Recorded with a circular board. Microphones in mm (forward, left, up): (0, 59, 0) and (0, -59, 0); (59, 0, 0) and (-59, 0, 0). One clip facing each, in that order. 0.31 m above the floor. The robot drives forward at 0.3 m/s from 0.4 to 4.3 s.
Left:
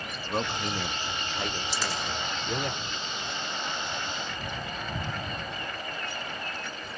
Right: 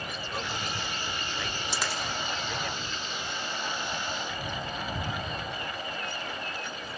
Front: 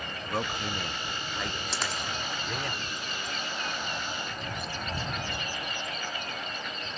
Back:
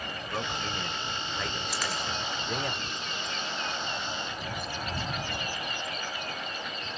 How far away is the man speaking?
About 1.0 m.